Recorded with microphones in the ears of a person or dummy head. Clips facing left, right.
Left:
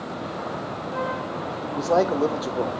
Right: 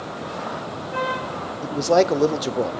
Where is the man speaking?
35° right (ahead or behind), 0.6 m.